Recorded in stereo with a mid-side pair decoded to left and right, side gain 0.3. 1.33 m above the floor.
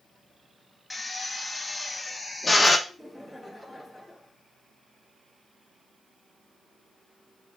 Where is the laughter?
5° right, 3 m.